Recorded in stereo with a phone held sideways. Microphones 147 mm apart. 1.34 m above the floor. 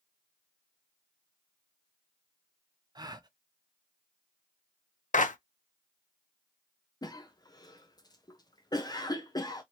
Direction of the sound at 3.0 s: 30° right (ahead or behind).